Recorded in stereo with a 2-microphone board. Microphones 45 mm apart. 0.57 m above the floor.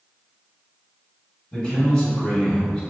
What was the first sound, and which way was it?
A man speaking, 20° left (ahead or behind).